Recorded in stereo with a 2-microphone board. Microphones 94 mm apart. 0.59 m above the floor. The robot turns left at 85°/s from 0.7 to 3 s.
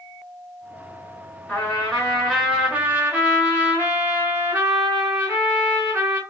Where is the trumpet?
15° left (ahead or behind), 1.2 m; by 6.2 s 20° right (ahead or behind), 1.2 m.